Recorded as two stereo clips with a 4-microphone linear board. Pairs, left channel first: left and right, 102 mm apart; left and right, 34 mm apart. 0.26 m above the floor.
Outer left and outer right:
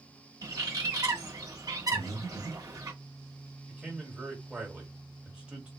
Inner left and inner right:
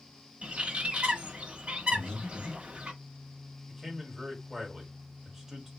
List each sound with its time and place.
0.4 s a bird: 35° right (ahead or behind), 1.0 m
1.9 s breathing: 35° left (ahead or behind), 0.9 m
3.7 s a man speaking: 10° right (ahead or behind), 1.4 m